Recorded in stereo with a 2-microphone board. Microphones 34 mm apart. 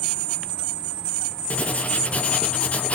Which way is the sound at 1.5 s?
40° left (ahead or behind).